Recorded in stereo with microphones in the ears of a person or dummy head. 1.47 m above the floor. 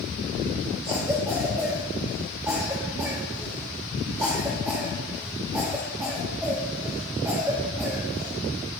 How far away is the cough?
About 2.5 m.